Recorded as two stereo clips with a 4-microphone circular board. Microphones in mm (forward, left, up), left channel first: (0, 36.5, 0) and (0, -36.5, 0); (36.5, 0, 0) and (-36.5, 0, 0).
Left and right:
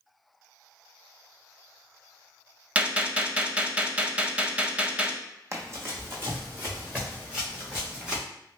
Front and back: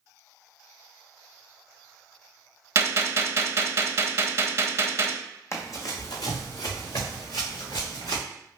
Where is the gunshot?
155° right, 0.5 m.